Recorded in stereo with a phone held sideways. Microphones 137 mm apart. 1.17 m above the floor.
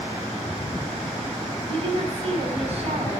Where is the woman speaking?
50° right (ahead or behind), 7.5 m.